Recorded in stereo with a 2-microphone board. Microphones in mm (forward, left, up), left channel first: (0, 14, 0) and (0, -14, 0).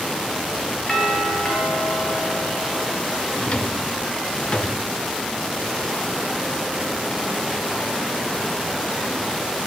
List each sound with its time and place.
0.9 s a doorbell: 20° left (ahead or behind), 6 m
3.4 s a drawer: 40° left (ahead or behind), 1.4 m